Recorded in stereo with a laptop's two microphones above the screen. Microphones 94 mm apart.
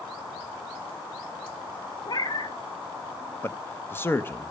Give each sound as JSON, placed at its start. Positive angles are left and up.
{"t": 2.1, "sound": "a cat meowing", "side_deg": 45, "distance_m": 0.9}
{"t": 3.4, "sound": "a man speaking", "side_deg": 25, "distance_m": 0.8}